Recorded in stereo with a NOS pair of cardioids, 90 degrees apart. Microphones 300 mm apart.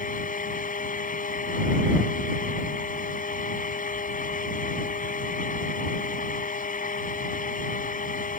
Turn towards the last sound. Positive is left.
turn(degrees=30)